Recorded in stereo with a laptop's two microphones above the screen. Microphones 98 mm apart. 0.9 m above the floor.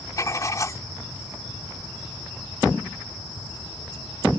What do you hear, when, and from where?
0.2 s writing: 35° left (ahead or behind)